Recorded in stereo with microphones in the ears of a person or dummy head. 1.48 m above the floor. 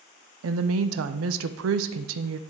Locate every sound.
0.4 s a woman speaking: 75° right (ahead or behind), 0.5 m